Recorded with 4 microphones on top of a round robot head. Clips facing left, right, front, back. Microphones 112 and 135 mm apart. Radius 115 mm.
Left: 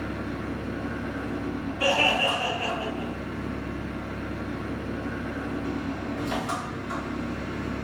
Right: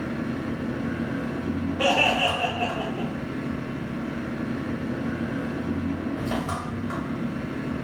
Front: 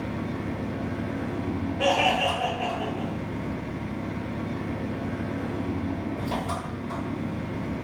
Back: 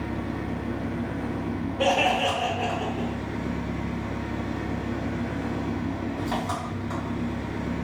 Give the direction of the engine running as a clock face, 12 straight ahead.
1 o'clock.